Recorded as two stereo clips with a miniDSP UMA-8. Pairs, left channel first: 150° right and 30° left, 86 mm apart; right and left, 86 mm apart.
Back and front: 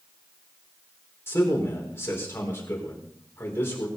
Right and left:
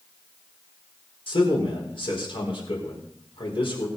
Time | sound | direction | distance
1.3 | a man speaking | 85° right | 5.5 m